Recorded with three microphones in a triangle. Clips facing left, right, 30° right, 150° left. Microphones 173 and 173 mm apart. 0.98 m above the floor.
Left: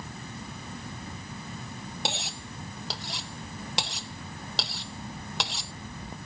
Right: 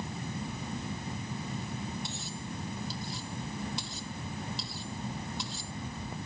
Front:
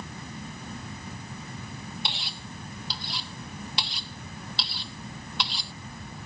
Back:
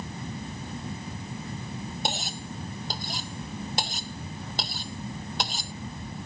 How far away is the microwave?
No microwave in this recording.